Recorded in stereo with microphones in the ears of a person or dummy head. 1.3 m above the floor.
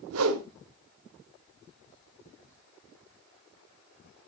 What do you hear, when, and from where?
0.1 s a whoosh: 80° right, 1.7 m